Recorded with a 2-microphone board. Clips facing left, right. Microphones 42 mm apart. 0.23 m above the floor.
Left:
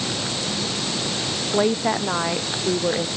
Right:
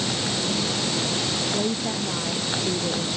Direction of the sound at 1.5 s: 50° left (ahead or behind).